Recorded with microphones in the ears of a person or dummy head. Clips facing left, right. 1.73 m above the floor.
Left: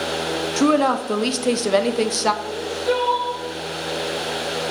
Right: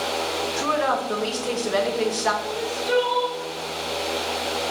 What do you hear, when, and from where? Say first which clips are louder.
0.6 s a woman speaking: left 8 dB; 55° left (ahead or behind), 0.7 m
2.4 s crying: left 4 dB; 40° left (ahead or behind), 2.0 m